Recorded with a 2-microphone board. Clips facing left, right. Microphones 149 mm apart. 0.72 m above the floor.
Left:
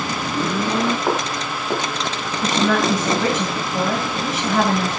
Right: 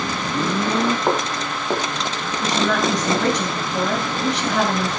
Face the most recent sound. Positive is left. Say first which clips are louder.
# left 2 dB
turn(degrees=0)  # may be behind; listen again after turning